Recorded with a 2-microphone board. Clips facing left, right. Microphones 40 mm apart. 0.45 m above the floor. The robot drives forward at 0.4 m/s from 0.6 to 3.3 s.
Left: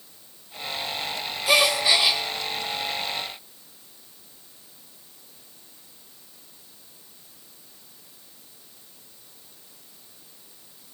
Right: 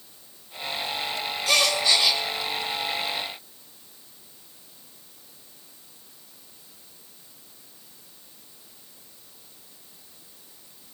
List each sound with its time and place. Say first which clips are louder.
1.5 s a gasp: left 2 dB; 15° left (ahead or behind), 0.9 m